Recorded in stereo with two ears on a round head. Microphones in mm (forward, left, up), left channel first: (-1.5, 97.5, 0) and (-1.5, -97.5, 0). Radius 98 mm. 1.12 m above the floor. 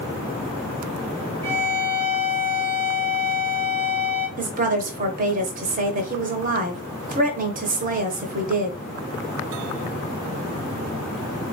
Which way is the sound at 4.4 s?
40° right (ahead or behind).